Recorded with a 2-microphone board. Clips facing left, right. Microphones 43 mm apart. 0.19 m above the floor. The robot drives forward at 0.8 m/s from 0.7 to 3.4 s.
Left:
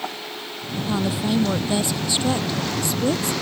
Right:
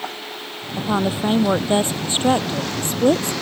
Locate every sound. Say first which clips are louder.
0.8 s a woman speaking: right 3 dB; 35° right (ahead or behind); by 3.3 s 45° right (ahead or behind)